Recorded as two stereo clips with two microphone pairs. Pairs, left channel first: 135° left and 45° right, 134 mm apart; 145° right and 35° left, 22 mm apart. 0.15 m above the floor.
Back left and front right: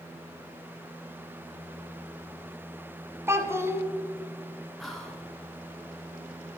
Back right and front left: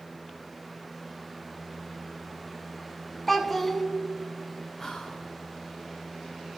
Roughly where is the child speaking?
Ahead right.